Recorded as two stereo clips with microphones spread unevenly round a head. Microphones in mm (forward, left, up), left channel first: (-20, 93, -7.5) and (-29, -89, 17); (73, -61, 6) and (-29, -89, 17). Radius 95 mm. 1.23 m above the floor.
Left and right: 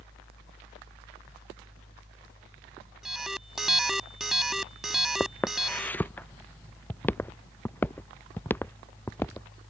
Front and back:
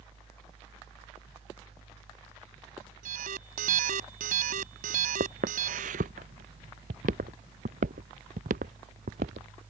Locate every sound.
3.0 s an alarm: straight behind
5.2 s footsteps: 170° left